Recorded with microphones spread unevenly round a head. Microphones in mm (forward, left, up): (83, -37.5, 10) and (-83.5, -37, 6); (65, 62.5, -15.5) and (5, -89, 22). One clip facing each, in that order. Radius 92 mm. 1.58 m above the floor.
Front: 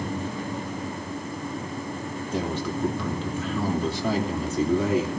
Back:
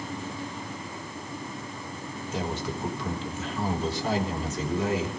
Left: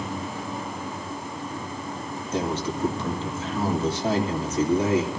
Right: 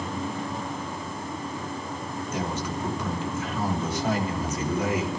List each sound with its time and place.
2.3 s a man speaking: 5° left, 3 m